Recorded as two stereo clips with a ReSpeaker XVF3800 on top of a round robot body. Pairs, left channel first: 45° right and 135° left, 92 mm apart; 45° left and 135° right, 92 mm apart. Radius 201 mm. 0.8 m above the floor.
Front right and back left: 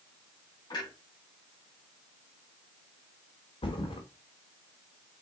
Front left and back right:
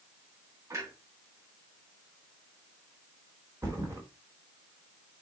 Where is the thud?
75° right, 0.9 m.